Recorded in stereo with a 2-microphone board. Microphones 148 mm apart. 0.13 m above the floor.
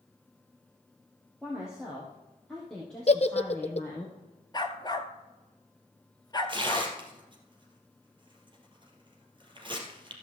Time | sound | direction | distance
1.4 | a woman speaking | 5° right (ahead or behind) | 3.5 m
3.1 | a giggle | 45° left (ahead or behind) | 0.7 m
4.5 | a dog barking | 30° left (ahead or behind) | 1.1 m
6.5 | tearing paper | 35° right (ahead or behind) | 2.5 m